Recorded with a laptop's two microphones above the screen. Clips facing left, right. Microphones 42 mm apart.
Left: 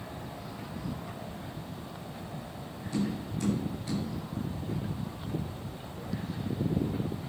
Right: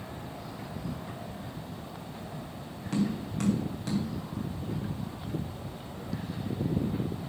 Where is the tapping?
75° right (ahead or behind), 3 m.